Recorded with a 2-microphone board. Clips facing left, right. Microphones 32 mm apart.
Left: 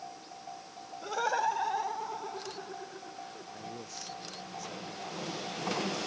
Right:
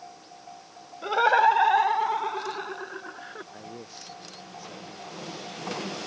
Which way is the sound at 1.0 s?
40° right (ahead or behind).